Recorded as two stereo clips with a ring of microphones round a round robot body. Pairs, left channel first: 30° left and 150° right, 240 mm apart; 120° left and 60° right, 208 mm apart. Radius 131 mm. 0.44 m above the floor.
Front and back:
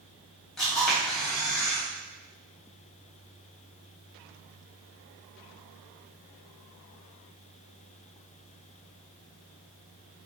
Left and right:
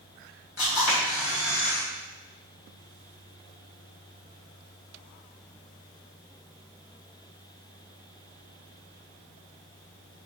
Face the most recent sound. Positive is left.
turn(degrees=120)